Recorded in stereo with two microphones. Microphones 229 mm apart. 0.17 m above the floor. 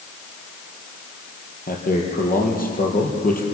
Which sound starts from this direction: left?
A man speaking, at 1.7 s.